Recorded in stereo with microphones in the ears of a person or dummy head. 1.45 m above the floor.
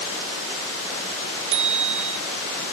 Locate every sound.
1.5 s a bicycle bell: 75° right (ahead or behind)